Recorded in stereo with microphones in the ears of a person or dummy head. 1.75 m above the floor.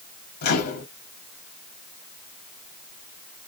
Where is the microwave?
55° left (ahead or behind), 0.8 m.